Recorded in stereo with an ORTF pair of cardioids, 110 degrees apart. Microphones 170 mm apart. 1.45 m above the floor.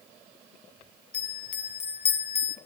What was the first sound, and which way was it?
A bell, 35° left.